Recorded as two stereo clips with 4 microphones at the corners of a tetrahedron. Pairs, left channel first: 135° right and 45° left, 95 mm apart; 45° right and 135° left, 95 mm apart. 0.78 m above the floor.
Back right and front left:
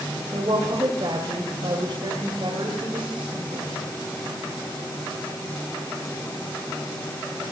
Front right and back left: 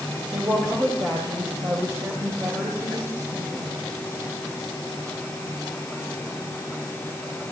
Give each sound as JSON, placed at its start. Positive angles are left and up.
{"t": 0.3, "sound": "a woman speaking", "azimuth_deg": 75, "distance_m": 3.0}